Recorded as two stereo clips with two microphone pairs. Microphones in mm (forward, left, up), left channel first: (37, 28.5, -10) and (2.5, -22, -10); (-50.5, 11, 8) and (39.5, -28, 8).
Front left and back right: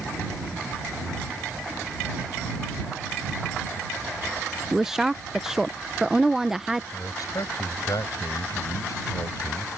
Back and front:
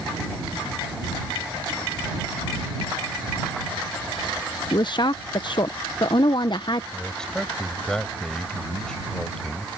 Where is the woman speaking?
155° left.